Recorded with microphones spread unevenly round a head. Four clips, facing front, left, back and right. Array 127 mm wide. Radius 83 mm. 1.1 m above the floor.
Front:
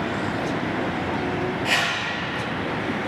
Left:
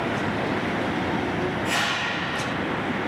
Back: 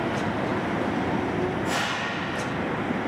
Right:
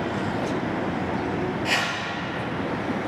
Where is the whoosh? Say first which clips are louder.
Left 1 dB, front 2 dB; 5° right, 6.5 m.